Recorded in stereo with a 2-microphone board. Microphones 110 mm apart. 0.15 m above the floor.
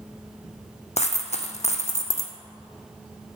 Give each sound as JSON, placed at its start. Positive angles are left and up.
{"t": 1.0, "sound": "a dropped coin", "side_deg": 80, "distance_m": 0.8}